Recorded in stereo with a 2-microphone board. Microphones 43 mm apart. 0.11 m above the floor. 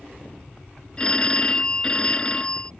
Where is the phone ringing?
20° left (ahead or behind).